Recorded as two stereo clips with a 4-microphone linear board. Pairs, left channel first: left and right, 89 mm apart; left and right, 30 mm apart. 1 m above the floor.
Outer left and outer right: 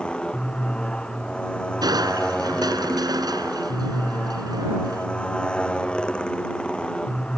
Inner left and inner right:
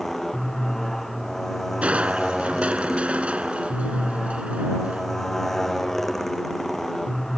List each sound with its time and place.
0.0 s a motorcycle: 10° left (ahead or behind)
1.8 s crushing: 45° right (ahead or behind)